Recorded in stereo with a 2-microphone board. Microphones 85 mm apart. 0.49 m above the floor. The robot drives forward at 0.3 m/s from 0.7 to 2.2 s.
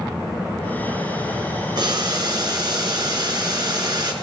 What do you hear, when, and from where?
1.8 s boiling: 55° right (ahead or behind), 2.5 m